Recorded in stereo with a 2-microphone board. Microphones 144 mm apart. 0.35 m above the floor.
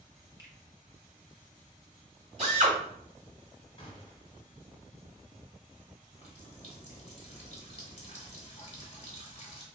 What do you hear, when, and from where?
0.4 s a finger snap: 20° right (ahead or behind), 0.9 m
2.4 s a drill: 45° right (ahead or behind), 2.0 m
3.8 s a gunshot: 40° left (ahead or behind), 1.1 m
6.1 s a running tap: 45° left (ahead or behind), 0.9 m